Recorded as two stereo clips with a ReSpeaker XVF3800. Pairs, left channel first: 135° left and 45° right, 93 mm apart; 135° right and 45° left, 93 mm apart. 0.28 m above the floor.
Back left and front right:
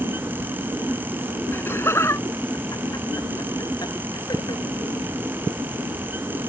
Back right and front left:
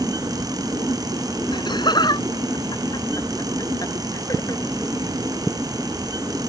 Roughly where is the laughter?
Behind.